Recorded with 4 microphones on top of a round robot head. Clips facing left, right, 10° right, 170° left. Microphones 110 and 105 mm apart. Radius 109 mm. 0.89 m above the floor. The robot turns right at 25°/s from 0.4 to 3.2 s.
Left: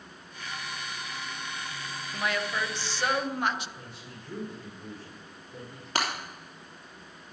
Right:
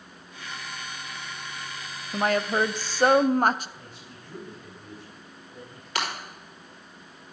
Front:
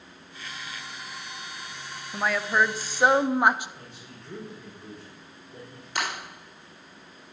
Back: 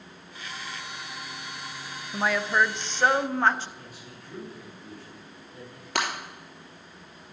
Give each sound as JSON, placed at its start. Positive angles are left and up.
{"t": 2.1, "sound": "a woman speaking", "azimuth_deg": -105, "distance_m": 0.5}
{"t": 3.8, "sound": "a man speaking", "azimuth_deg": 55, "distance_m": 3.5}
{"t": 6.0, "sound": "breaking glass", "azimuth_deg": 145, "distance_m": 3.0}